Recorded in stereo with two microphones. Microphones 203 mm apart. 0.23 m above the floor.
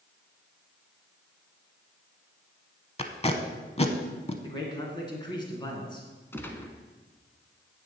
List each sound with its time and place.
3.0 s tape being pulled: 30° left (ahead or behind), 0.9 m
4.4 s a man speaking: 20° left (ahead or behind), 2.5 m
6.3 s a gunshot: 10° left (ahead or behind), 1.0 m